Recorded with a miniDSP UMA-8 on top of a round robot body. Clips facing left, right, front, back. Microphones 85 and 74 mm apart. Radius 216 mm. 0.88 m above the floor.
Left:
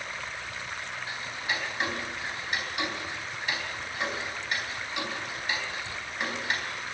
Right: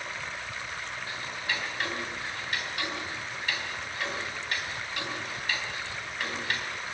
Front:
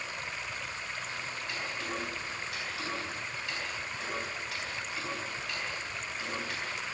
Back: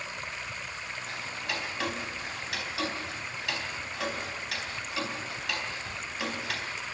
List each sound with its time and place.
1.1 s ticking: 160° left, 3.5 m